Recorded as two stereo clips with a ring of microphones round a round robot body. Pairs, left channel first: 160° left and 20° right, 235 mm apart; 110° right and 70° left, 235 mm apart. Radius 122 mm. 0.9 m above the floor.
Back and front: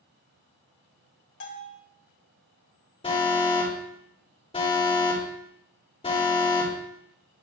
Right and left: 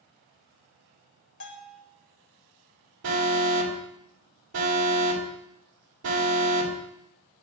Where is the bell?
160° right, 1.5 m.